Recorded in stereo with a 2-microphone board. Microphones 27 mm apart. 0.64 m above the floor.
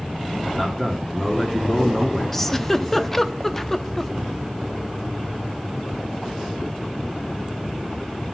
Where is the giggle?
10° left (ahead or behind), 0.6 m.